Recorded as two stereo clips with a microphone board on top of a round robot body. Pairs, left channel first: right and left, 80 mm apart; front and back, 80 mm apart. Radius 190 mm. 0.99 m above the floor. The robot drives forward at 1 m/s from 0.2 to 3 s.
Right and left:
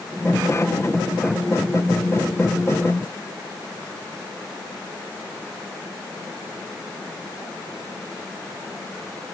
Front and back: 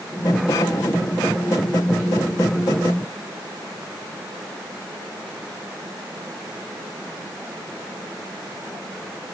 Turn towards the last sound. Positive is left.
No sound to turn to.